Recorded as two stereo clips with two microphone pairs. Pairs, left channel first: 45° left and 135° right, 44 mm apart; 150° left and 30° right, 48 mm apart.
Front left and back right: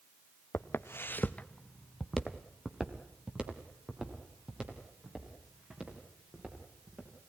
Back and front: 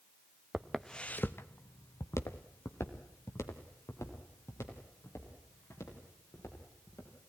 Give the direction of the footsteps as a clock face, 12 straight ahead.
10 o'clock.